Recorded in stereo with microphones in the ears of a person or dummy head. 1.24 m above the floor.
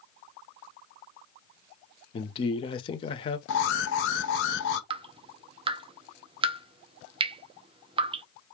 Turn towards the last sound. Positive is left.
turn(degrees=-35)  # may be behind; listen again after turning